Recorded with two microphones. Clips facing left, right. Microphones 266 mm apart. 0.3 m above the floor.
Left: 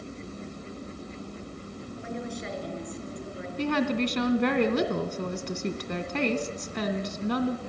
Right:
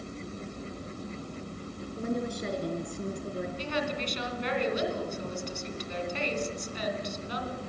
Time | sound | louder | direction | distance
2.0 | a woman speaking | right 5 dB | 45° right (ahead or behind) | 5 m
3.6 | a woman speaking | left 13 dB | 70° left (ahead or behind) | 2.5 m